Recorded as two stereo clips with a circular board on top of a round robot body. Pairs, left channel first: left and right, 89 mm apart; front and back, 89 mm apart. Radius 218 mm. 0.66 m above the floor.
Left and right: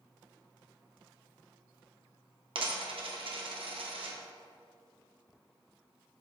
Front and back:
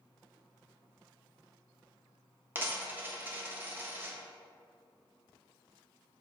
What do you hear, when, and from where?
2.5 s a dropped coin: 110° right, 1.1 m